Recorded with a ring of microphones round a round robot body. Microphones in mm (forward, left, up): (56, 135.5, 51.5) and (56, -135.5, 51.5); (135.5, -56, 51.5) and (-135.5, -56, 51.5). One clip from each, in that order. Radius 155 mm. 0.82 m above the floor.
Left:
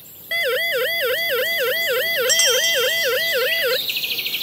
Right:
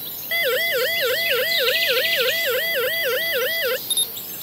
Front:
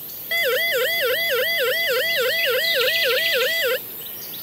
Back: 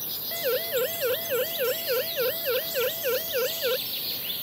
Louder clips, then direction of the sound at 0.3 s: Even, front 8 dB; 10° left.